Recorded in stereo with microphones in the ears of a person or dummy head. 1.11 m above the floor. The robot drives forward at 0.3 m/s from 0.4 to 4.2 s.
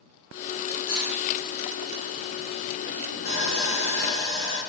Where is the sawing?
50° left (ahead or behind), 2 m; by 4.6 s 45° left (ahead or behind), 2 m.